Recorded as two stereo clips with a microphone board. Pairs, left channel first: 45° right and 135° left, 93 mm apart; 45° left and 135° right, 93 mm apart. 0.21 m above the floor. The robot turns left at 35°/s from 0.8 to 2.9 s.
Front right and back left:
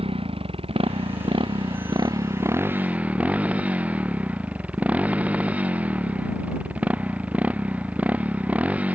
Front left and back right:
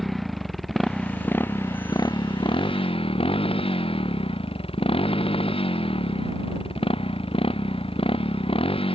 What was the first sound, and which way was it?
A motorcycle, 135° left.